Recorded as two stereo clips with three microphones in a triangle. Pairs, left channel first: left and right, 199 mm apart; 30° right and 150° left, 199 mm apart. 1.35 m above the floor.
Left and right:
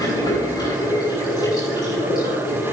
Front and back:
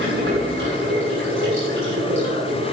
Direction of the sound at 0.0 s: 160° left.